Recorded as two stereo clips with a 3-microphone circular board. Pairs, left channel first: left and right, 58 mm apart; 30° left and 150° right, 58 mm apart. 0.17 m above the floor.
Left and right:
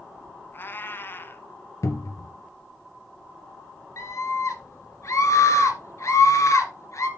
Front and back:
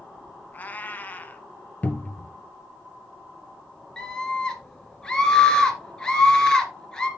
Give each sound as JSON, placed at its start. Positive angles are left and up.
{"t": 0.5, "sound": "a cat meowing", "azimuth_deg": 75, "distance_m": 0.7}
{"t": 1.8, "sound": "a cupboard door", "azimuth_deg": 95, "distance_m": 1.0}
{"t": 4.0, "sound": "a scream", "azimuth_deg": 105, "distance_m": 2.5}